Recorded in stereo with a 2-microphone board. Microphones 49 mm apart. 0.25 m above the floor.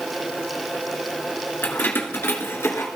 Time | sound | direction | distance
1.6 | keys jangling | 45° left (ahead or behind) | 1.8 m